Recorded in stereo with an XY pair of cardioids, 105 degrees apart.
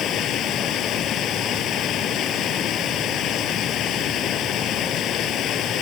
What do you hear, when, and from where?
0.0 s running water: 70° left